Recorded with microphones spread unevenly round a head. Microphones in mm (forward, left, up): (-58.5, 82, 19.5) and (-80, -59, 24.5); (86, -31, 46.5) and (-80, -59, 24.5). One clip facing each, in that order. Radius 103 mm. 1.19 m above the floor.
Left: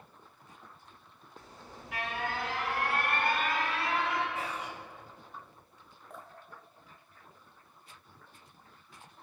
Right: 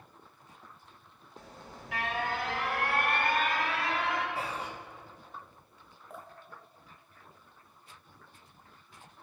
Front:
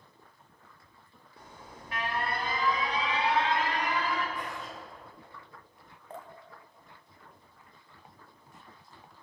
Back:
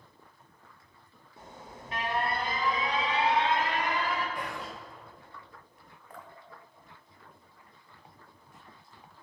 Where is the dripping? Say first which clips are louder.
Right 1 dB, front 3 dB; 20° right, 0.6 m.